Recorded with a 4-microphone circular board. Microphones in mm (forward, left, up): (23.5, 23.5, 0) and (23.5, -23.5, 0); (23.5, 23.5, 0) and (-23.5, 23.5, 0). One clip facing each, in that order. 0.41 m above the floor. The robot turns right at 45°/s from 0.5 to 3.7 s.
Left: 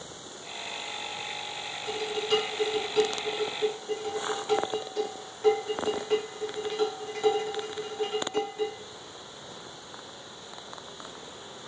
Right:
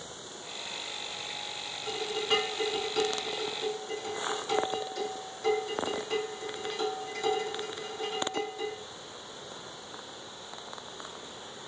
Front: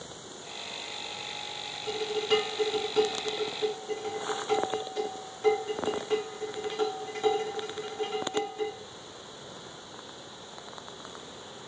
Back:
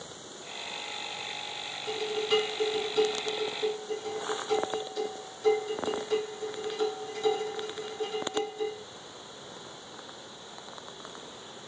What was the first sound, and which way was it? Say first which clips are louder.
Dishes clattering: left 2 dB, front 1 dB; 40° right.